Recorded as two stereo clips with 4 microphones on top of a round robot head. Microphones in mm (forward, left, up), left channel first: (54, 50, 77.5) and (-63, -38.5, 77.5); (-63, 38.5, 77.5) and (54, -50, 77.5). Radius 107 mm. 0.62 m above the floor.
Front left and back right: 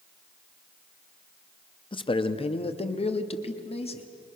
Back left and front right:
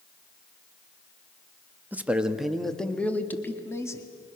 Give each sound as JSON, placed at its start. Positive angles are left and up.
{"t": 1.9, "sound": "a man speaking", "azimuth_deg": 30, "distance_m": 1.3}